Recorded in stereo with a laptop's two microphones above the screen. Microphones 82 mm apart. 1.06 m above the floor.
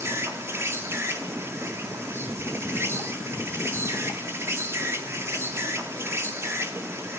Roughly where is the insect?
Right.